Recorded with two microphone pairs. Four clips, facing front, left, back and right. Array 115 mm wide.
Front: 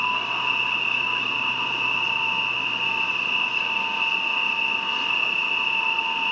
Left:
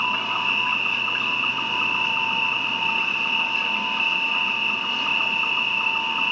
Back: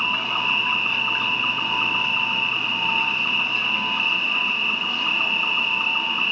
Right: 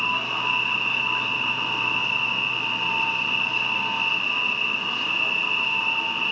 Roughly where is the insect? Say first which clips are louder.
Left 2 dB, even; behind left.